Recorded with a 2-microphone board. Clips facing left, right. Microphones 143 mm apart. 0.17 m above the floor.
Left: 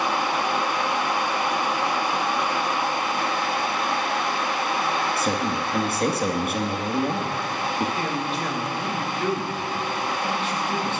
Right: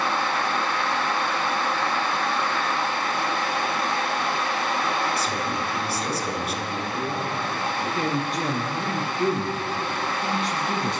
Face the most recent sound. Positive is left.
turn(degrees=-40)  # may be behind; listen again after turning